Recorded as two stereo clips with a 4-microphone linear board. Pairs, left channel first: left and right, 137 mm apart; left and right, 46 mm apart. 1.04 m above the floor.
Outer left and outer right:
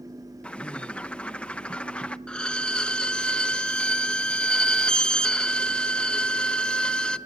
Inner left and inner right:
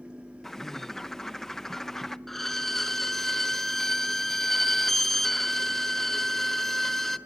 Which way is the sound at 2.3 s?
5° left (ahead or behind).